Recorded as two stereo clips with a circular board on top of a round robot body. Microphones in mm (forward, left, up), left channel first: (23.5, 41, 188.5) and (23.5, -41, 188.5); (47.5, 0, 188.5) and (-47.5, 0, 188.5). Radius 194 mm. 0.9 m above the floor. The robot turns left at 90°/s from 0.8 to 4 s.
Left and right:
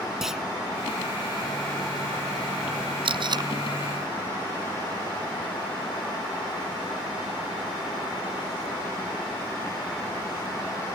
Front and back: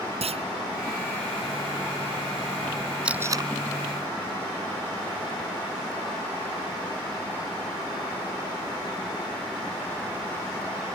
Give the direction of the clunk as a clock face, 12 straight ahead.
6 o'clock.